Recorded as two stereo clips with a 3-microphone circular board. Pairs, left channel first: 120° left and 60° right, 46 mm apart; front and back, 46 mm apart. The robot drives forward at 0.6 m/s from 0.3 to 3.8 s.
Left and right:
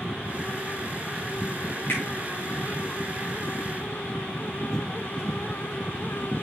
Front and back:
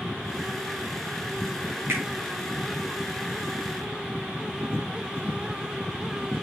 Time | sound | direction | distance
1.9 | a finger snap | 160° left | 3.5 m